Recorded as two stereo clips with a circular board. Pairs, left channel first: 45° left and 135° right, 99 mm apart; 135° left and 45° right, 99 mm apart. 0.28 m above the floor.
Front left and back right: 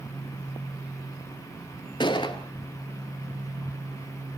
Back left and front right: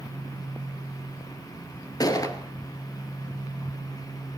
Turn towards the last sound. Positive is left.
turn(degrees=85)